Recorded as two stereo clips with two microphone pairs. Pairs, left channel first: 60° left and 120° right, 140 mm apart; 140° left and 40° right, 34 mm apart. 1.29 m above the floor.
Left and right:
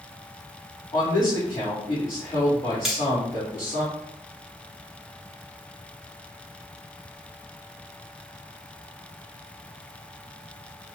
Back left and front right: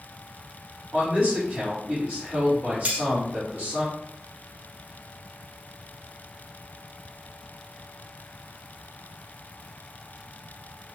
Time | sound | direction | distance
0.9 | a man speaking | 30° left | 2 m
2.9 | cutlery clinking | 30° right | 0.9 m